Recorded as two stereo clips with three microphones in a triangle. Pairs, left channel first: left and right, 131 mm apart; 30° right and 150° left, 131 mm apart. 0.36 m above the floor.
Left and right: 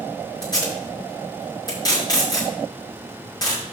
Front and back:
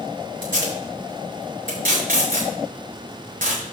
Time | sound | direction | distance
0.4 | tape being pulled | 150° left | 6 m